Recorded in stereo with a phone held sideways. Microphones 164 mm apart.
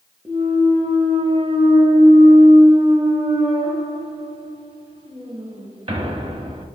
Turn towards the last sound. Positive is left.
turn(degrees=-35)  # may be behind; listen again after turning